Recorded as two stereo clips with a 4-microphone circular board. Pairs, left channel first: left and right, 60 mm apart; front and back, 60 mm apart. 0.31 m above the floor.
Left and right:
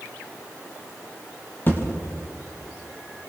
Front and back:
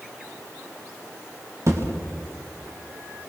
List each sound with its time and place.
1.7 s a thud: 145° left, 5 m